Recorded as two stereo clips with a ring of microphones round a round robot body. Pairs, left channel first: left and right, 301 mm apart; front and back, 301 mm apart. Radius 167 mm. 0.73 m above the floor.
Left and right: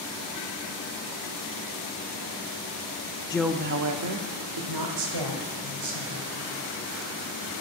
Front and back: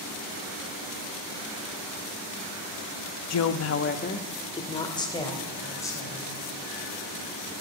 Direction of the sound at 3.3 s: 15° left.